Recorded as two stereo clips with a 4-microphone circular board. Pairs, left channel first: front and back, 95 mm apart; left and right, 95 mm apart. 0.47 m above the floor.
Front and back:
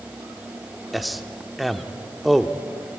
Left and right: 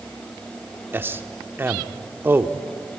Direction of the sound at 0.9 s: 95° right.